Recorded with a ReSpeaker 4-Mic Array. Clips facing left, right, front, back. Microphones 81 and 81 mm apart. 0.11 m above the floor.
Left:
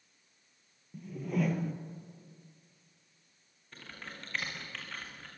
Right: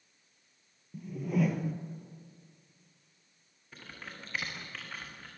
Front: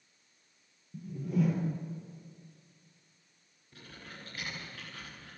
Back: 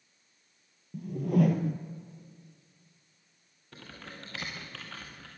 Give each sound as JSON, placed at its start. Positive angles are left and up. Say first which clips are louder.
{"t": 0.9, "sound": "a whoosh", "louder": "right 2 dB, back 5 dB", "azimuth_deg": -175, "distance_m": 1.6}
{"t": 3.7, "sound": "typing on a keyboard", "louder": "even, back 3 dB", "azimuth_deg": -175, "distance_m": 6.0}